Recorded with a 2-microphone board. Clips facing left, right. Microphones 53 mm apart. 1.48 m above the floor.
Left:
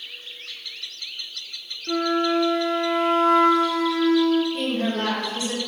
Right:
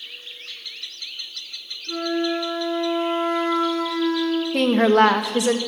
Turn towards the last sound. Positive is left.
turn(degrees=-80)